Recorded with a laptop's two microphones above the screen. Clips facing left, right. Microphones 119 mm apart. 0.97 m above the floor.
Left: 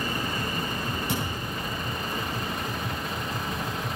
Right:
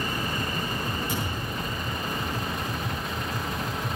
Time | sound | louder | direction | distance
1.1 | a thud | even | 70° left (ahead or behind) | 7.5 m